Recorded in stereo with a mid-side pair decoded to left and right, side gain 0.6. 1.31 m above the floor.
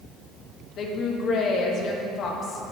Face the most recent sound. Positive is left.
turn(degrees=50)